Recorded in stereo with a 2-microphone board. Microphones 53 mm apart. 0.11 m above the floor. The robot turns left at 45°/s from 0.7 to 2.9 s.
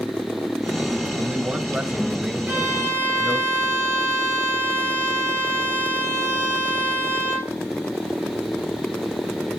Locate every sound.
1.1 s a man speaking: 25° right (ahead or behind), 1.6 m; by 3.5 s 5° right (ahead or behind), 1.6 m
2.5 s a violin: 35° right (ahead or behind), 4 m; by 7.5 s 55° right (ahead or behind), 4 m